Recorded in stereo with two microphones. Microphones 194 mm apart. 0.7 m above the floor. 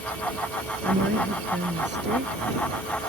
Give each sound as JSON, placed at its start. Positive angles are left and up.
{"t": 0.8, "sound": "a woman speaking", "side_deg": -65}